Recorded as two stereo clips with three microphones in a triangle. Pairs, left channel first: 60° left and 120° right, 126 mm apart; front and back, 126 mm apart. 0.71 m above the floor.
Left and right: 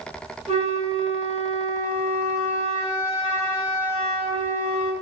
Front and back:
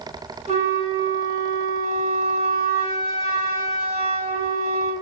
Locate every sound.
0.5 s a flute: 150° right, 1.5 m